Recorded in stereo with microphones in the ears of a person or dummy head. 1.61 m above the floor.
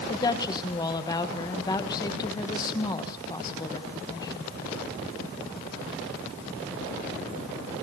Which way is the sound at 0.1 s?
20° left (ahead or behind).